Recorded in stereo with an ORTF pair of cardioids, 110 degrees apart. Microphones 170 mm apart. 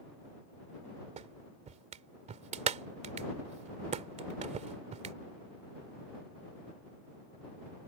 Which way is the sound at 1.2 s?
45° right.